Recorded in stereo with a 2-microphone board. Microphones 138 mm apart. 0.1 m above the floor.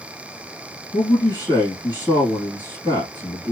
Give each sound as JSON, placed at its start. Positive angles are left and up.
{"t": 0.9, "sound": "a man speaking", "side_deg": 30, "distance_m": 1.8}